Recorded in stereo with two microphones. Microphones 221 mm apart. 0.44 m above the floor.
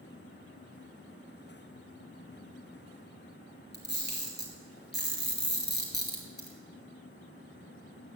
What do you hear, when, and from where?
3.7 s a camera shutter: 50° left (ahead or behind), 2.5 m